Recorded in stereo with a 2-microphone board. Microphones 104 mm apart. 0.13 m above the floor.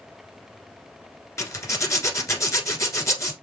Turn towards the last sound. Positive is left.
turn(degrees=30)  # may be behind; listen again after turning